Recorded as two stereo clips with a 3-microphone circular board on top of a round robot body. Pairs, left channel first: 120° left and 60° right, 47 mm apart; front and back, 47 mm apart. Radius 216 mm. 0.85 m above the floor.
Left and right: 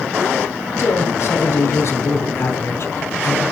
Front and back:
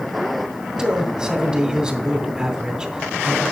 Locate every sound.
0.8 s a man speaking: 110° left, 3 m